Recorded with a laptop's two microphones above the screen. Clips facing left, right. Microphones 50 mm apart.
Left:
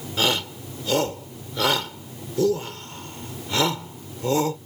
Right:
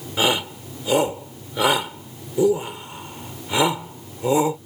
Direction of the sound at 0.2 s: 15° right (ahead or behind).